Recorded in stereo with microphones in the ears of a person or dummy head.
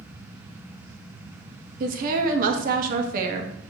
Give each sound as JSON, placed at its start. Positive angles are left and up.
{"t": 1.8, "sound": "a woman speaking", "side_deg": -45, "distance_m": 0.7}